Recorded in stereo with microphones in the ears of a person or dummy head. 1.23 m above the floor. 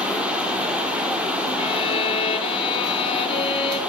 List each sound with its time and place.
0.0 s running water: 5° right (ahead or behind), 1.0 m
1.6 s a violin: 30° left (ahead or behind), 1.5 m